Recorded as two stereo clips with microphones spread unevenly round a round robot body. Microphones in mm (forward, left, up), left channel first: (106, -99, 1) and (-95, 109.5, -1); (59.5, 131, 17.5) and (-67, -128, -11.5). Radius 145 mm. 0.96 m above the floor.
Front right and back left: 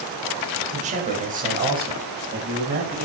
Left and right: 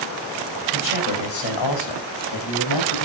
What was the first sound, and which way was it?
A man speaking, 65° left.